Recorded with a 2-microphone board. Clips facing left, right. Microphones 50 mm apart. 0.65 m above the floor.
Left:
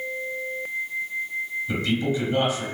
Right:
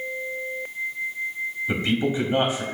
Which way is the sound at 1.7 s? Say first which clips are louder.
Right 1 dB; 30° right (ahead or behind).